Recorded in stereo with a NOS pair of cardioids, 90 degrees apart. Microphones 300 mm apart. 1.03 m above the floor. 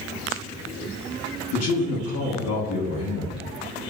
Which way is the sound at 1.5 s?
60° left.